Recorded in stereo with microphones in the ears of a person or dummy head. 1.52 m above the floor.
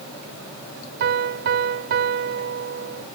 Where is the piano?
50° right (ahead or behind).